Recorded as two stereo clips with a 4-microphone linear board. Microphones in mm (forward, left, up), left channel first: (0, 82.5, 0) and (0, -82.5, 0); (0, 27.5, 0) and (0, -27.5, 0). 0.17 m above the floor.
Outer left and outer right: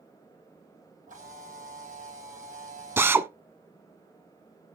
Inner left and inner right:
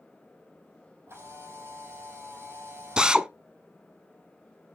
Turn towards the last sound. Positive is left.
turn(degrees=-15)  # may be behind; listen again after turning